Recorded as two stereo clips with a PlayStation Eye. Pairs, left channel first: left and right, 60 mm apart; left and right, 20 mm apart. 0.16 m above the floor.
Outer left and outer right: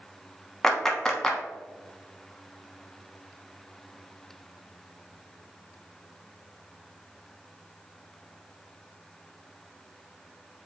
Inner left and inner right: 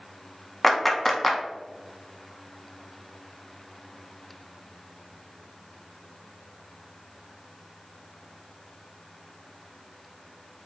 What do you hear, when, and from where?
0.6 s a clap: 5° left (ahead or behind), 0.9 m